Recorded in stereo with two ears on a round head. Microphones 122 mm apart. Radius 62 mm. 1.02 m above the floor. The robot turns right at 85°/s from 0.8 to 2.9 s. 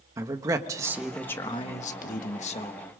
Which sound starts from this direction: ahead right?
A man speaking, at 0.2 s.